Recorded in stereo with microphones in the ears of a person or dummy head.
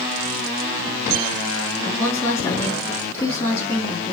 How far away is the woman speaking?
About 2.5 m.